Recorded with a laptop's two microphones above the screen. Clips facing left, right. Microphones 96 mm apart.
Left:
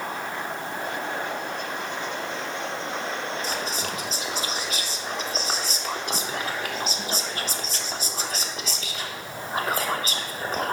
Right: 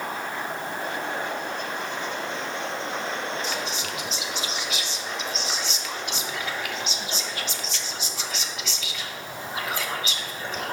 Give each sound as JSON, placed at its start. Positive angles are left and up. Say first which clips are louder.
{"t": 3.4, "sound": "whispering", "louder": "left 1 dB", "side_deg": 40, "distance_m": 0.6}